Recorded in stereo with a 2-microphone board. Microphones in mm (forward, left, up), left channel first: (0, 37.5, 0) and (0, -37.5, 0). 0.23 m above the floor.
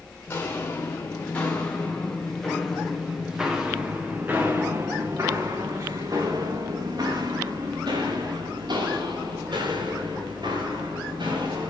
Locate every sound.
0.3 s footsteps: 30° left (ahead or behind), 3 m; by 11.7 s 90° right, 5 m